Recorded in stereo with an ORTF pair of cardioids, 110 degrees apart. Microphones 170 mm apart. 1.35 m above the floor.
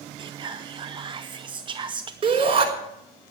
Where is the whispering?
30° right, 0.6 m.